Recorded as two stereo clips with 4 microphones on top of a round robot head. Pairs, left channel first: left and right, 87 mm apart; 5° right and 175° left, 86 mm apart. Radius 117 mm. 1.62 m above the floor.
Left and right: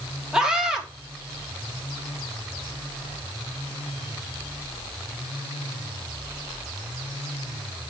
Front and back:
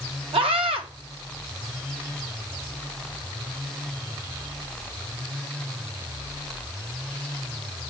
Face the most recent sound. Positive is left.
turn(degrees=-175)